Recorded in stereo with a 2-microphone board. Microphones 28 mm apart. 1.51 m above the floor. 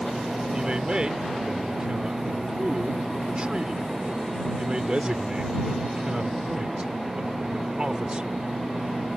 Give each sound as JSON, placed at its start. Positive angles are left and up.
{"t": 0.5, "sound": "a man speaking", "side_deg": -35}